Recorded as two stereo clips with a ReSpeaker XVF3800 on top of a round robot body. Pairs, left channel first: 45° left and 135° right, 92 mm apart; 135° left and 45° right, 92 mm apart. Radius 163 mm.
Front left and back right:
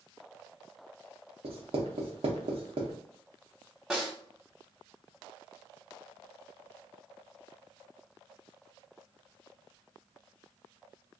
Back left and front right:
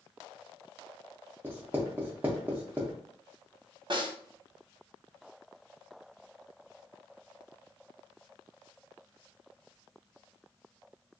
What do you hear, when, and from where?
1.4 s writing: 115° right, 0.5 m
3.9 s a snare drum: 50° right, 1.4 m